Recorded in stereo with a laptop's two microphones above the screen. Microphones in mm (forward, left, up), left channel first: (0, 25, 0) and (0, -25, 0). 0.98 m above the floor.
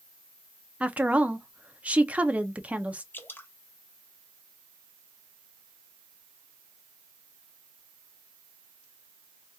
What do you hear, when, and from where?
0.8 s a woman speaking: 25° right (ahead or behind), 0.6 m
3.1 s dripping: 40° left (ahead or behind), 0.7 m